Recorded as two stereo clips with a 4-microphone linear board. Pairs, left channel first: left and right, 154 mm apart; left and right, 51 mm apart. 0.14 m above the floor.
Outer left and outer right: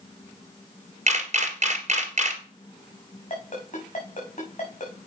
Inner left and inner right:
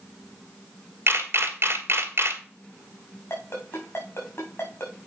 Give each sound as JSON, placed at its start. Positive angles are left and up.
{"t": 1.1, "sound": "a camera shutter", "side_deg": -50, "distance_m": 2.0}
{"t": 3.3, "sound": "a ringtone", "side_deg": 55, "distance_m": 4.5}